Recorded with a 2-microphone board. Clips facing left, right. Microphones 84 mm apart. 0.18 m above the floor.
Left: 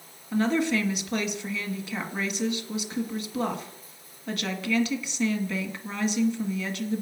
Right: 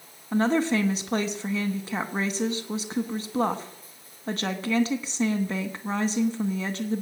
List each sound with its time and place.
0.3 s a woman speaking: 35° right (ahead or behind), 1.4 m